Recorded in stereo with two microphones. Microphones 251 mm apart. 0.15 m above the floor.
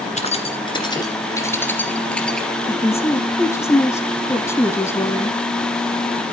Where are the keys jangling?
30° left (ahead or behind), 1.7 m; by 2.5 s centre (ahead or behind), 2.5 m.